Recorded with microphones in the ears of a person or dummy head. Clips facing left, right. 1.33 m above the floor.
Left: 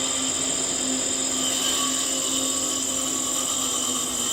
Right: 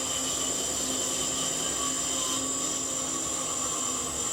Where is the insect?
60° left (ahead or behind), 0.9 m.